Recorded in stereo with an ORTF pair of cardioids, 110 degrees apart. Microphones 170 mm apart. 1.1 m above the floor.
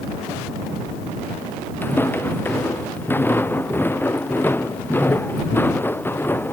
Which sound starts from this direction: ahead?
Footsteps, at 1.8 s.